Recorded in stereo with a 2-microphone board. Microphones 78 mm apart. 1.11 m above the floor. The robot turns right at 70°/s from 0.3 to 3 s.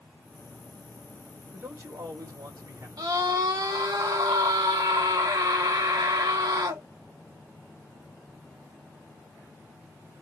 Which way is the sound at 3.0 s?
75° right (ahead or behind).